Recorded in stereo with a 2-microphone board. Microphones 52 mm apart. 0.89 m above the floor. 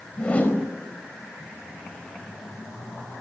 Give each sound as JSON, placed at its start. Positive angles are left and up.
{"t": 0.2, "sound": "a whoosh", "side_deg": 25, "distance_m": 4.5}